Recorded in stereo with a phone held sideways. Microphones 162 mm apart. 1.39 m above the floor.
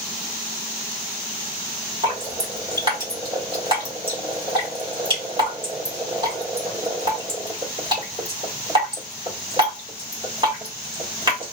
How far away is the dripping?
About 1.6 m.